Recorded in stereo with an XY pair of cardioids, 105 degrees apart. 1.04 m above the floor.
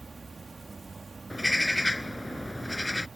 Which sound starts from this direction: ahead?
A bird, at 1.3 s.